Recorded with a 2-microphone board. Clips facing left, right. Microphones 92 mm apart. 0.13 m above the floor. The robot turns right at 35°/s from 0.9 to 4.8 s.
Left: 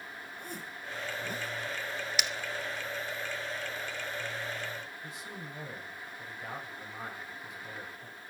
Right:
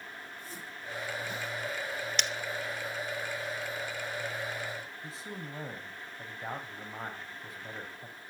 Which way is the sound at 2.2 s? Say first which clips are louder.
Even; 5° left (ahead or behind).